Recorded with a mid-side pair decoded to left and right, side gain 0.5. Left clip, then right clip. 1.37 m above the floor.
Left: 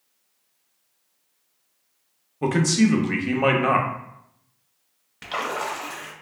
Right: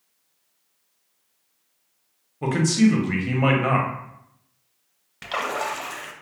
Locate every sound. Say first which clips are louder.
2.4 s a man speaking: even; 15° left, 0.7 m
5.2 s a splash: right 1 dB; 15° right, 0.6 m